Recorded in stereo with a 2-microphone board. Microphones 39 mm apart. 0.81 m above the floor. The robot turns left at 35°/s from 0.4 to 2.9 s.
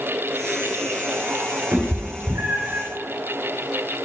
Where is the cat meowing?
65° right (ahead or behind), 1.5 m; by 2.8 s 75° right (ahead or behind), 1.5 m.